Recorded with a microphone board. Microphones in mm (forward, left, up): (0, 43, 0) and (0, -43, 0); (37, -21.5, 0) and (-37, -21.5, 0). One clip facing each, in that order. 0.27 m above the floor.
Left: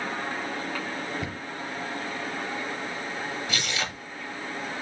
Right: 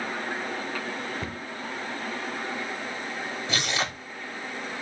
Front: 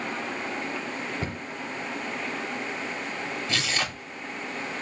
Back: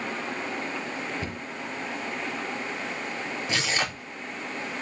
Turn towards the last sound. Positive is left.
turn(degrees=-120)